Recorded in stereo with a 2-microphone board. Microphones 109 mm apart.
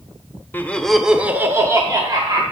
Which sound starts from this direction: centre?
Laughter, at 0.5 s.